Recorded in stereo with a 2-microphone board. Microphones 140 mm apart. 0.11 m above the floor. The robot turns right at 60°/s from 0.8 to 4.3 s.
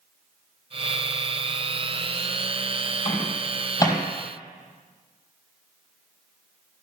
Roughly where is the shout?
I don't hear a shout.